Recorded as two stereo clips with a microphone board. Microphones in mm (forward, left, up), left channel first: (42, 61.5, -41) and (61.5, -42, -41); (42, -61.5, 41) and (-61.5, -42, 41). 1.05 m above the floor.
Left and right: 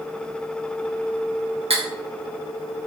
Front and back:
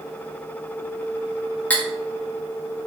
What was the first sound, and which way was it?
Cutlery clinking, 85° right.